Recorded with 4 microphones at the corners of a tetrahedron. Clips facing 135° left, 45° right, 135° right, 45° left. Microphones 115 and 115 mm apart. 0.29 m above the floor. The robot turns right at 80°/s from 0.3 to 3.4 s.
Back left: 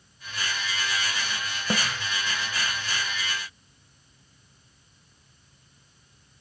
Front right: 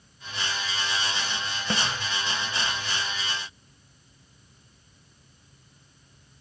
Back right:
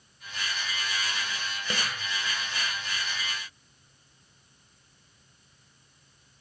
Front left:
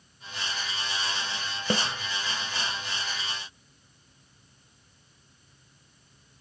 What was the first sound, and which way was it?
A snare drum, 70° left.